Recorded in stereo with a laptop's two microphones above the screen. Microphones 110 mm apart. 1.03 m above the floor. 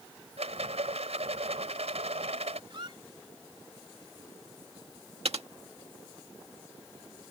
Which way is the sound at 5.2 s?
75° right (ahead or behind).